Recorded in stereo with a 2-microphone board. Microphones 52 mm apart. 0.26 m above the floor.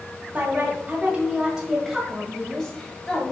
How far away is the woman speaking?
About 1.7 m.